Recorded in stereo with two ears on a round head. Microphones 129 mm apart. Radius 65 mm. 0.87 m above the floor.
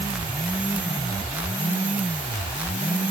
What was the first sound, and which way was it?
Only background noise.